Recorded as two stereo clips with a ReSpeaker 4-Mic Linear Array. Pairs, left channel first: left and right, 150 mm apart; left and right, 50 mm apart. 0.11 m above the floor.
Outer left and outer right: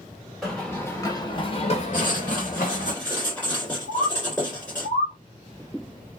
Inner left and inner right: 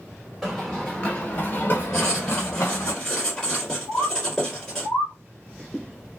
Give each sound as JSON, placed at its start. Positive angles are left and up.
{"t": 0.4, "sound": "running footsteps", "side_deg": 0, "distance_m": 1.1}
{"t": 1.9, "sound": "writing", "side_deg": 10, "distance_m": 1.7}
{"t": 3.9, "sound": "a bird", "side_deg": 55, "distance_m": 1.2}